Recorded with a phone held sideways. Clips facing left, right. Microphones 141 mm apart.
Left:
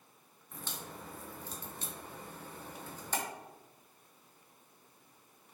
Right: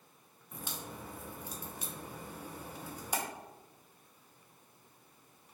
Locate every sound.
0.5 s a crack: 10° right (ahead or behind), 0.6 m